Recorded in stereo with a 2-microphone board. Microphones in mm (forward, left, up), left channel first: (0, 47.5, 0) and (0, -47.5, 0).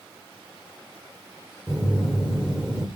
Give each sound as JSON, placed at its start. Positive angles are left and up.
{"t": 1.7, "sound": "a phone buzzing", "side_deg": -5, "distance_m": 2.5}